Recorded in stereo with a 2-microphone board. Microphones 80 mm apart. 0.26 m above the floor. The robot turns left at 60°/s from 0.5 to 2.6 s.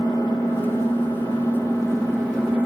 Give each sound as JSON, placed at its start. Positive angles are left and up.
{"t": 0.0, "sound": "an engine running", "azimuth_deg": 105, "distance_m": 3.0}